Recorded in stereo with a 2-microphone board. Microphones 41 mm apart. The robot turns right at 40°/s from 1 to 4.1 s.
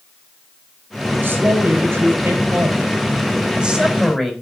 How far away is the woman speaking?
About 4 m.